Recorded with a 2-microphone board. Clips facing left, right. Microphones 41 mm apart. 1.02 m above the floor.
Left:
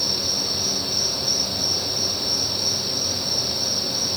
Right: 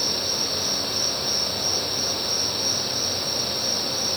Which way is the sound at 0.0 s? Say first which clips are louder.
Even; 35° right (ahead or behind).